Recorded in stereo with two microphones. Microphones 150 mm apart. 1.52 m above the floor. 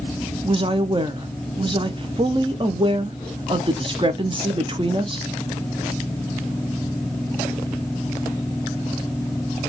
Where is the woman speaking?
35° right (ahead or behind), 0.8 m.